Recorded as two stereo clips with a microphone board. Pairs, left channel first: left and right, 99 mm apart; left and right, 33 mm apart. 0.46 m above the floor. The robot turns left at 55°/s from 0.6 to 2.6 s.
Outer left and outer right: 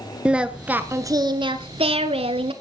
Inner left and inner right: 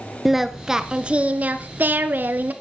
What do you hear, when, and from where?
0.2 s singing: 10° right, 1.1 m; by 2.5 s 115° right, 1.1 m